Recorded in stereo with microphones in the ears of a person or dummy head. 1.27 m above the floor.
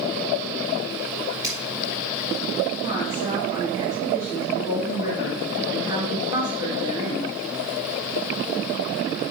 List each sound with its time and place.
1.4 s scissors: 20° right (ahead or behind), 3 m
2.8 s a woman speaking: 25° right (ahead or behind), 3.5 m